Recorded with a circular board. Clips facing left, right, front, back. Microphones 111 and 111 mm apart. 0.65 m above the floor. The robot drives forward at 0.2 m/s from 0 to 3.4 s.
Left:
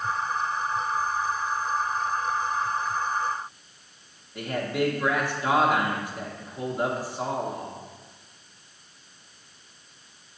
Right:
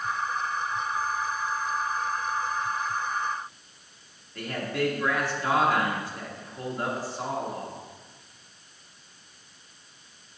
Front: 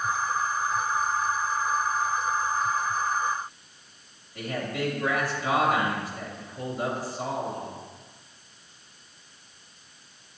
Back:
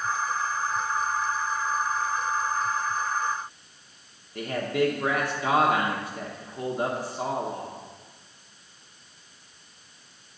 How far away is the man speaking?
About 1.1 m.